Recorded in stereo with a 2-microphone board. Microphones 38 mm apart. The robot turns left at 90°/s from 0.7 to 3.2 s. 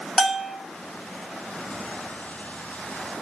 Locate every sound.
0.2 s a bell: 5° right (ahead or behind), 0.7 m